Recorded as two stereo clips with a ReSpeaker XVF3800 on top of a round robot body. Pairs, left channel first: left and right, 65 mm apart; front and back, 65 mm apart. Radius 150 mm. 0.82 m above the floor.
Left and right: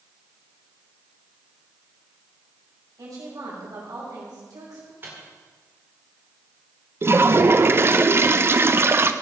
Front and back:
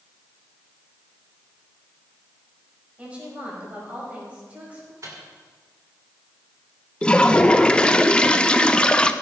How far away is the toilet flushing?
About 0.9 m.